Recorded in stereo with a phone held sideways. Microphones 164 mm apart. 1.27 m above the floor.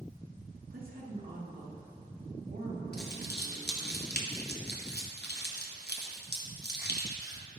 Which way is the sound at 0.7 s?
65° right (ahead or behind).